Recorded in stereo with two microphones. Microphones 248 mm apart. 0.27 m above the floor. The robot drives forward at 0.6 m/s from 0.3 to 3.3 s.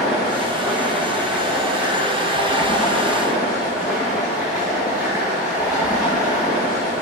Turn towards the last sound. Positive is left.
turn(degrees=0)  # may be behind; listen again after turning